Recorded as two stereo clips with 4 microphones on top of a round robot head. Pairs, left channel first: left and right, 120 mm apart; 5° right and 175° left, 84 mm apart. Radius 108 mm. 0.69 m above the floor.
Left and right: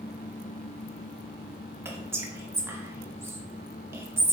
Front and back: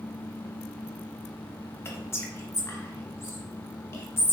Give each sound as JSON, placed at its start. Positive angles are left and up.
{"t": 1.9, "sound": "whispering", "azimuth_deg": -35, "distance_m": 0.9}